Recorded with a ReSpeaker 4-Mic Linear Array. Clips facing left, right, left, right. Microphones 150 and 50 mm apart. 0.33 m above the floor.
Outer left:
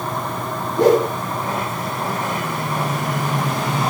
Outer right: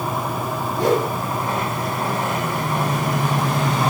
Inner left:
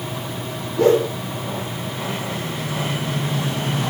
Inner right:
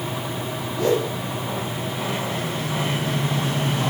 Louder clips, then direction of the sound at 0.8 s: Outer left 5 dB, inner left 6 dB; 70° left (ahead or behind).